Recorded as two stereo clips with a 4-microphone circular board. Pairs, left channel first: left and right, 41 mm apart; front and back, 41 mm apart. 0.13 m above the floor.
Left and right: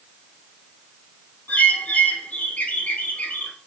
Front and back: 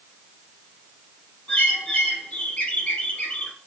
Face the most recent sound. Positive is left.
turn(degrees=50)